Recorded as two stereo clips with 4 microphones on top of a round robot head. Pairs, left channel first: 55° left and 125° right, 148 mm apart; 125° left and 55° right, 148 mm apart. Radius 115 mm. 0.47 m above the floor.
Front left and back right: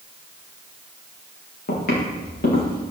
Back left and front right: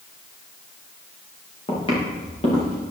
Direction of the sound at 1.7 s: 70° left.